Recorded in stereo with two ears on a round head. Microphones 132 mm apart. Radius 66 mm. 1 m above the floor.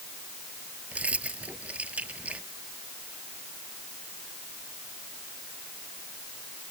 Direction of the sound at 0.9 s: 10° right (ahead or behind).